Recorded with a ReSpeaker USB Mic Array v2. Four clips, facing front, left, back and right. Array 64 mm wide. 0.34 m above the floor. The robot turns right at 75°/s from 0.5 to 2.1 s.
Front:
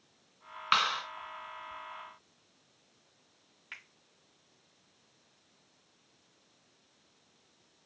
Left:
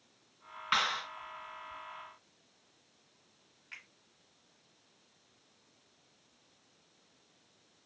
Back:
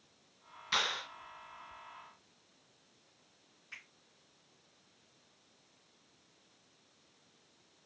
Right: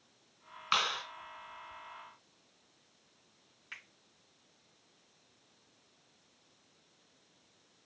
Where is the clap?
5° right, 2.5 m; by 1.0 s 20° left, 2.5 m.